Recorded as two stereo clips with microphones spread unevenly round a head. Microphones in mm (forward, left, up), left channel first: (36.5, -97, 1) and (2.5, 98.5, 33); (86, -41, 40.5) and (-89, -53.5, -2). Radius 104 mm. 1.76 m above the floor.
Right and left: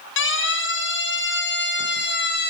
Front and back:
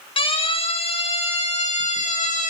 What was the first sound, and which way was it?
A siren, 55° right.